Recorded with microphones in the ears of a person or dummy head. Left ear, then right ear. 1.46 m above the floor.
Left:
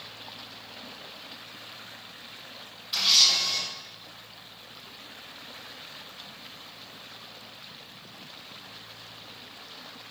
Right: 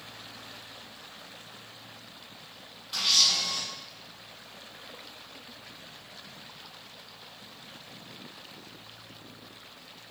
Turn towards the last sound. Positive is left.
turn(degrees=10)  # may be behind; listen again after turning